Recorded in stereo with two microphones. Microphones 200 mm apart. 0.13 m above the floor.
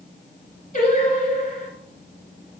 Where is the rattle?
No rattle in this recording.